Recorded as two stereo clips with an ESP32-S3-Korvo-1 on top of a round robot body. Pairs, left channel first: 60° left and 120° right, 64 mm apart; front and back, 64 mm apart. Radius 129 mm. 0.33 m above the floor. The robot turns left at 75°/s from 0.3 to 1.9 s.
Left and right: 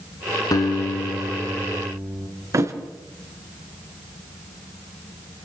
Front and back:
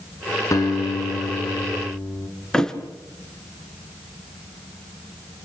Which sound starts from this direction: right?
A thud, at 2.5 s.